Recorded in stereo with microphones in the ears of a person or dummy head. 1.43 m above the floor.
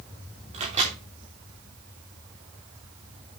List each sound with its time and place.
0.5 s a microwave: 35° right (ahead or behind), 2.5 m